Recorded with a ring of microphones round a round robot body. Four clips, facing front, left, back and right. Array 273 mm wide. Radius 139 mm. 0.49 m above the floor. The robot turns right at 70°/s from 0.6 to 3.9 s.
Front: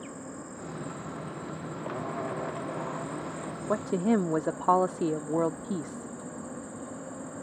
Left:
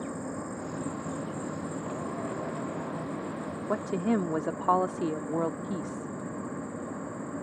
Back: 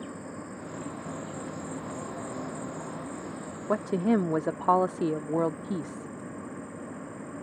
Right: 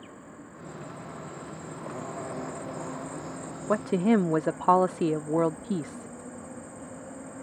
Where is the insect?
85° left; by 7.4 s 45° right.